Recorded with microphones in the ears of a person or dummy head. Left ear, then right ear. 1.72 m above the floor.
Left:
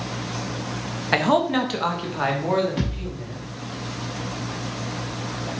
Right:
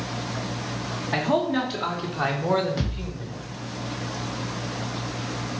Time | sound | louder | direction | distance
1.1 | a man speaking | left 4 dB | 50° left (ahead or behind) | 0.7 m
2.8 | a thud | left 2 dB | 20° left (ahead or behind) | 1.2 m